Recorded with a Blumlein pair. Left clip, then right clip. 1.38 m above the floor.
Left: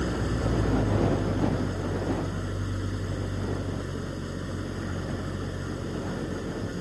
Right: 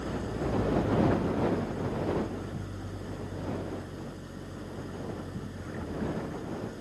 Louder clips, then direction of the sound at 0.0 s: Left 4 dB; 65° left.